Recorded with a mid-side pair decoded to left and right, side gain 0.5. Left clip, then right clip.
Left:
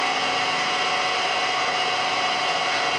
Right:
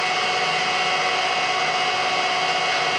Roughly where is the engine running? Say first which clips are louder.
Right 1 dB; ahead.